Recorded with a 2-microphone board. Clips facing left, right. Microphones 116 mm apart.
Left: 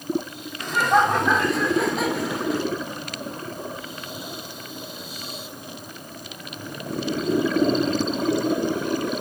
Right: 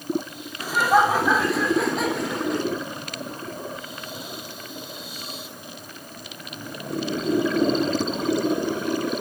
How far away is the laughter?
About 2 m.